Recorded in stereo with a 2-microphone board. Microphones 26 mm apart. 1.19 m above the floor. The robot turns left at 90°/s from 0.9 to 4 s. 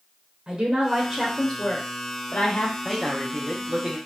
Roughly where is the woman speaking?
Behind right.